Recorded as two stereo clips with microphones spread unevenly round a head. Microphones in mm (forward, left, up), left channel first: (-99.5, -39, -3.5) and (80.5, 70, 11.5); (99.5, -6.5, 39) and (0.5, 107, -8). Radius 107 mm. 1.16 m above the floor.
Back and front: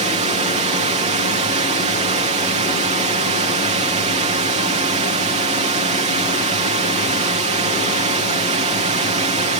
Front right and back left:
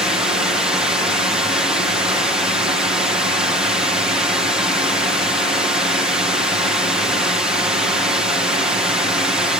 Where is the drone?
75° left.